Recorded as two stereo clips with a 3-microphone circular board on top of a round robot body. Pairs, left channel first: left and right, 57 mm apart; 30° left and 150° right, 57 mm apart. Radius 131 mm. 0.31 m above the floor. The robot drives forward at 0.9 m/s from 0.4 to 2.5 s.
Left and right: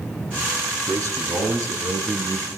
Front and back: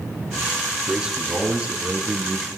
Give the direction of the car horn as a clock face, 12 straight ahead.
I don't hear a car horn.